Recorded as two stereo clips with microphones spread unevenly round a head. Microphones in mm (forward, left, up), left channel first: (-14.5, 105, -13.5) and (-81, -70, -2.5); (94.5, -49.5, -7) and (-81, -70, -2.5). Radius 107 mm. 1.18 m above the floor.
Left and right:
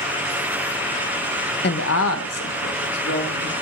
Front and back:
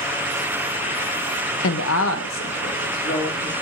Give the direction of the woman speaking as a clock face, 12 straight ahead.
11 o'clock.